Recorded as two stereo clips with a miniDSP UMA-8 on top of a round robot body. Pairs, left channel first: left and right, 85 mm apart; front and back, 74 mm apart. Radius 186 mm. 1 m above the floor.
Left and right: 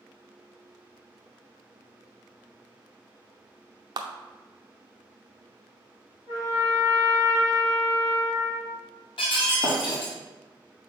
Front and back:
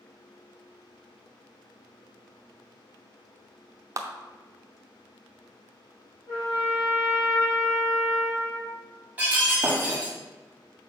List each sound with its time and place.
4.0 s a clap: 130° right, 0.6 m
6.3 s a trumpet: 35° left, 2.5 m
9.2 s breaking glass: 110° left, 1.3 m